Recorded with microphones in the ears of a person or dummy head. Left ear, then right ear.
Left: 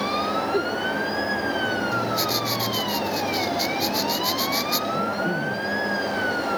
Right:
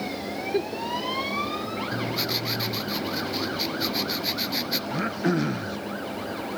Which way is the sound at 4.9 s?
60° right (ahead or behind).